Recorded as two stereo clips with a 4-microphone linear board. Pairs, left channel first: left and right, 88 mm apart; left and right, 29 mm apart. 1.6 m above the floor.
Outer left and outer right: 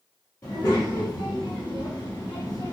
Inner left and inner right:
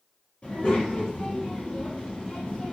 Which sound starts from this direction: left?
A child speaking, at 0.4 s.